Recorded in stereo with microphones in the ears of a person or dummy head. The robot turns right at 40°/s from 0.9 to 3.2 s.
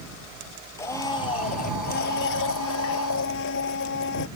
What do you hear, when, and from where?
0.8 s a blender: 15° left; by 4.3 s 110° left